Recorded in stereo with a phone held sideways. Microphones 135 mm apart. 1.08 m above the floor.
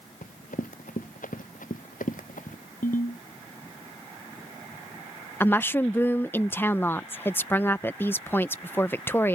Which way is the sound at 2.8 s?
85° left.